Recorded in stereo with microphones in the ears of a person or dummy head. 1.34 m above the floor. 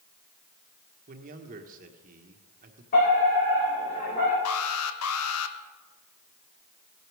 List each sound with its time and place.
1.1 s a man speaking: 40° right (ahead or behind), 1.6 m
2.9 s a fire alarm: 45° left (ahead or behind), 7 m
4.5 s an alarm: 80° left, 1.1 m